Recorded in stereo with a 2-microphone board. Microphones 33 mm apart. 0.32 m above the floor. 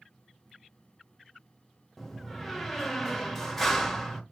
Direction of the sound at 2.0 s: 5° left (ahead or behind).